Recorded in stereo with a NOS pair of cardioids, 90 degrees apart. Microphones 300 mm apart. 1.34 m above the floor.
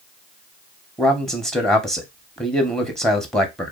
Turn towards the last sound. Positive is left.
turn(degrees=0)